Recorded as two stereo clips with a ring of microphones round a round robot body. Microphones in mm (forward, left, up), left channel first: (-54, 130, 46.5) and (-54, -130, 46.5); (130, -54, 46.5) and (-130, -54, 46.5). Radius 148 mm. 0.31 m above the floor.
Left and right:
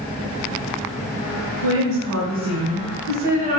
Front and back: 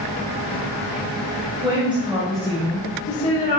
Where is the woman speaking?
100° right, 1.5 m; by 3.6 s 45° right, 1.1 m.